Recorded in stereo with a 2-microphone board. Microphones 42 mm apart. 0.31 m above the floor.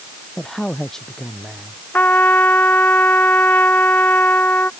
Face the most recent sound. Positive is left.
turn(degrees=45)  # may be behind; listen again after turning